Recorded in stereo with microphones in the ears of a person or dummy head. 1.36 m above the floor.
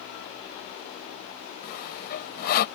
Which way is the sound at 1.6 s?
55° left (ahead or behind).